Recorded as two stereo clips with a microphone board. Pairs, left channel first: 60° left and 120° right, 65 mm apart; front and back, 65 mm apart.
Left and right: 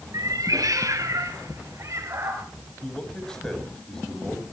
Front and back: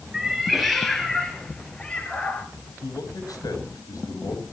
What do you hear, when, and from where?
0.1 s a cat meowing: 95° right, 3 m; by 2.5 s 70° right, 3.5 m
2.8 s a man speaking: 20° right, 6 m